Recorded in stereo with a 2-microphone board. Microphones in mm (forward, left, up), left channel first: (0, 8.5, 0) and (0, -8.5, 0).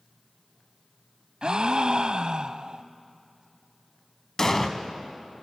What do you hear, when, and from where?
1.4 s a gasp: 55° right (ahead or behind), 0.6 m
4.4 s an explosion: 25° left (ahead or behind), 1.4 m